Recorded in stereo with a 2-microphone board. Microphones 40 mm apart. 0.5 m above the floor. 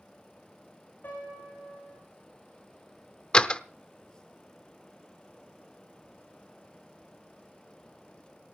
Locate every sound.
1.0 s a piano: 55° left (ahead or behind), 6.5 m
3.3 s a door slam: 25° left (ahead or behind), 0.7 m